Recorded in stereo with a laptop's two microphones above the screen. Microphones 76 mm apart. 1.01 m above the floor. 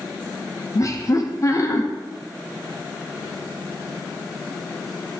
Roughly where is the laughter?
Left.